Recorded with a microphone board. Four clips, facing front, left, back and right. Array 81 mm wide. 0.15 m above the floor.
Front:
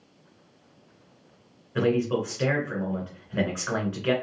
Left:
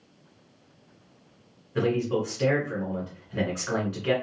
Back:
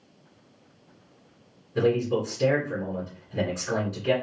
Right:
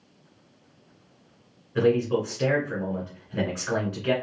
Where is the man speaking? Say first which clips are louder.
Right 3 dB, back 1 dB; 5° right, 1.7 m.